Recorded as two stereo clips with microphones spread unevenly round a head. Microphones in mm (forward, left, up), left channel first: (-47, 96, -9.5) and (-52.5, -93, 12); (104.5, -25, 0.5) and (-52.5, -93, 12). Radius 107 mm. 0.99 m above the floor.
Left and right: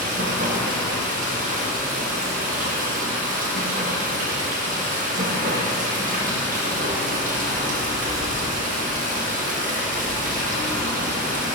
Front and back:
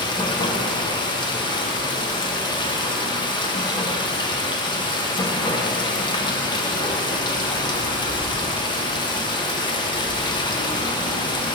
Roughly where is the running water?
Ahead right.